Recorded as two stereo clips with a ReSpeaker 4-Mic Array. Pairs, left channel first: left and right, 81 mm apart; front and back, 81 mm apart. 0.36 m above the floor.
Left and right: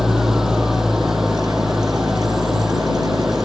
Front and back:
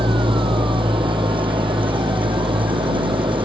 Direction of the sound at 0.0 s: 175° right.